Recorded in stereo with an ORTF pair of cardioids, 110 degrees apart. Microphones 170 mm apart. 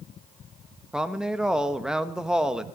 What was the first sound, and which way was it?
A woman speaking, 5° right.